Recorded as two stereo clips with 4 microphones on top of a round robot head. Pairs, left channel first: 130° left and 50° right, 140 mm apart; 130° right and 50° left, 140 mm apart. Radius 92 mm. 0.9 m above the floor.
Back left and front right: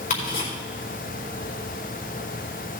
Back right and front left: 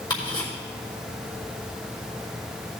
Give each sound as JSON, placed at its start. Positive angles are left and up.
{"t": 0.1, "sound": "ticking", "azimuth_deg": 165, "distance_m": 4.5}